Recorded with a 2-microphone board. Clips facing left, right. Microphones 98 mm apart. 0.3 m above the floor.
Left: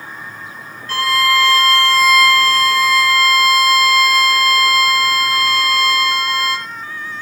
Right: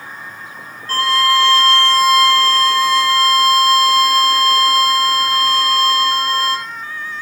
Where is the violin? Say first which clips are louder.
Right 1 dB; 40° right (ahead or behind), 1.3 m.